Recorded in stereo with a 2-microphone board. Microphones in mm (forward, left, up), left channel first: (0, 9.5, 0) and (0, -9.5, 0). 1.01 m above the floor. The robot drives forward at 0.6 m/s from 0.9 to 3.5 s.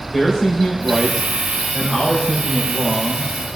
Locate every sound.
0.1 s a man speaking: 25° left (ahead or behind), 3.5 m; by 3.3 s 20° left (ahead or behind), 5 m